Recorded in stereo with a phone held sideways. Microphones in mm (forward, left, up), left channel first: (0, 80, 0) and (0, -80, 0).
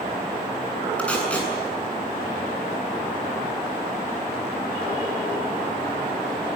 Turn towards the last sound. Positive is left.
turn(degrees=5)  # may be behind; listen again after turning